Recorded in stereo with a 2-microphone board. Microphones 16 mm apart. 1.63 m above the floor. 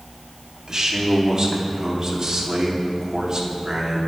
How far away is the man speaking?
About 4 m.